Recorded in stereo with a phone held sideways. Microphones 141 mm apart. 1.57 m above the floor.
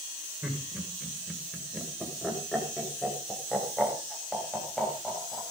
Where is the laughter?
5° right (ahead or behind), 7 m; by 5.4 s 5° left (ahead or behind), 10.5 m.